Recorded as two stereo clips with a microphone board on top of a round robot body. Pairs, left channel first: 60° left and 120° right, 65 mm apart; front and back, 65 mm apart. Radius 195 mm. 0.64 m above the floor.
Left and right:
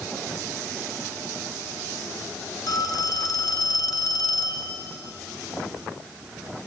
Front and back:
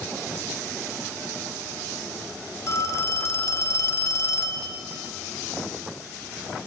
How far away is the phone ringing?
About 2 m.